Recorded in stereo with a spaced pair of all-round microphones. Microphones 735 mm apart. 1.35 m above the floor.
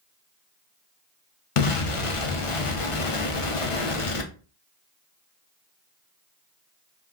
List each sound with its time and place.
1.6 s an explosion: 50° left (ahead or behind), 0.6 m